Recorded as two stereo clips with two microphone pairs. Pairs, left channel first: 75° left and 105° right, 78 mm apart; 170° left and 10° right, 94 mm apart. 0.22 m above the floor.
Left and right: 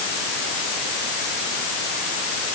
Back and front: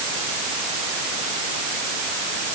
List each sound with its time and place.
Only background noise.